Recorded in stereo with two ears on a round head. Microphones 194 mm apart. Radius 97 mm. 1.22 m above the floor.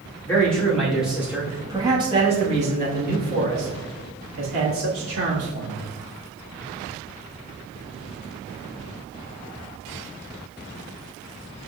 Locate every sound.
0.2 s a man speaking: 10° left (ahead or behind), 1.9 m; by 5.9 s 80° right, 2.5 m